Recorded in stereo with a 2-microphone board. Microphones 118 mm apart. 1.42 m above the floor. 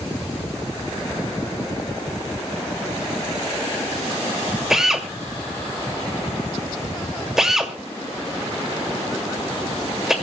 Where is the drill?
5° right (ahead or behind), 2 m.